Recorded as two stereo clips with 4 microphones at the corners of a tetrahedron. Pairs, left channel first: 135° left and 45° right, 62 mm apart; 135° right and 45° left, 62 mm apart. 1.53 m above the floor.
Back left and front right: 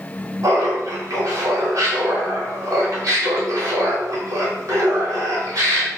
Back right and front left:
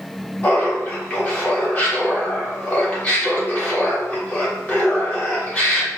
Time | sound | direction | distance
0.4 | laughter | 75° right | 1.8 m